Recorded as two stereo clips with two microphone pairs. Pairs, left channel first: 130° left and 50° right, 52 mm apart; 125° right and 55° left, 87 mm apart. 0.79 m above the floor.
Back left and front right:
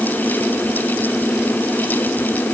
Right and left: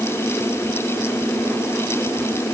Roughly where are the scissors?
I don't hear scissors.